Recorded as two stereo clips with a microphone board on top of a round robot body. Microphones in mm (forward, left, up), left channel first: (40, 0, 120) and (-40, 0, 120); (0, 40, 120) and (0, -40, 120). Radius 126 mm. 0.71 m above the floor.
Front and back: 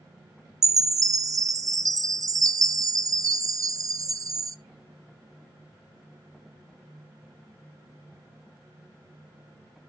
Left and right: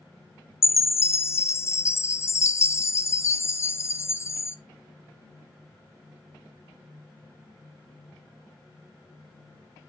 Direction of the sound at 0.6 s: 140° left.